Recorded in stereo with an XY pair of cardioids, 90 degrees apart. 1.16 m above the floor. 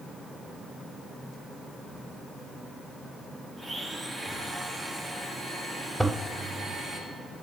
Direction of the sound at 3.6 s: 25° right.